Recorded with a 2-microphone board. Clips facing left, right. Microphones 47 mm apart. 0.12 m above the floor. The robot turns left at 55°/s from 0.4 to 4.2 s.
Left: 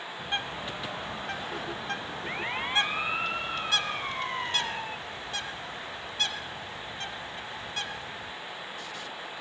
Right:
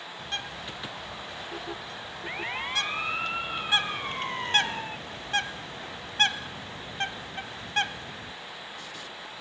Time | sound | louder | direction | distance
0.2 | a bird | left 3 dB | 20° left (ahead or behind) | 1.4 m